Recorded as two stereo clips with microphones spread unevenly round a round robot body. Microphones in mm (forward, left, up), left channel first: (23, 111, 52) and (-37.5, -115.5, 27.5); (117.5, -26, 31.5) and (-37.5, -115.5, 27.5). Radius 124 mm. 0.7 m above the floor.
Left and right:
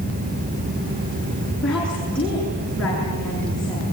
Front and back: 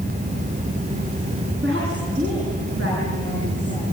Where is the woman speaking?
160° left, 9.5 m.